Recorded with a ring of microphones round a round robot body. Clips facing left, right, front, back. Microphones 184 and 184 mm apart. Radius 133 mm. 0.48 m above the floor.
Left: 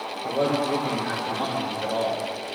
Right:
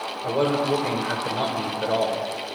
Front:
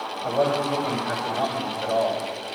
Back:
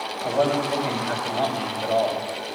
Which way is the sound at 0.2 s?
95° right.